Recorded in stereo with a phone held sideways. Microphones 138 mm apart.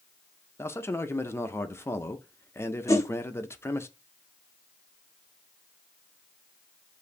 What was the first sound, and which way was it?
A man speaking, 20° left (ahead or behind).